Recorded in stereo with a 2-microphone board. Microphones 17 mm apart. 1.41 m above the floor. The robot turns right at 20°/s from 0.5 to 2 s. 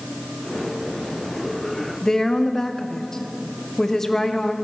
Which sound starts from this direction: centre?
A woman speaking, at 2.0 s.